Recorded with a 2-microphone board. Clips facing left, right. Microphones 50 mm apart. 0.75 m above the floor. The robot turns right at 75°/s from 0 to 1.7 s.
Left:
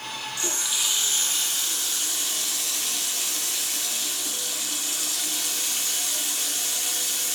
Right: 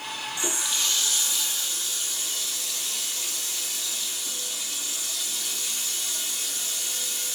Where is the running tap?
25° right, 1.0 m; by 7.3 s 75° left, 1.0 m.